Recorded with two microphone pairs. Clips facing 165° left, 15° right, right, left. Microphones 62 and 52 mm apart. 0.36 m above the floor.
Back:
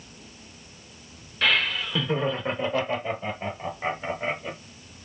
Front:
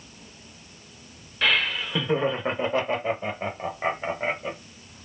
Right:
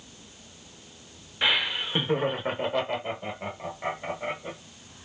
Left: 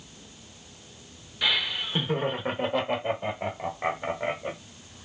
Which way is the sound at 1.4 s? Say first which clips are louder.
Even, right 2 dB; 100° right.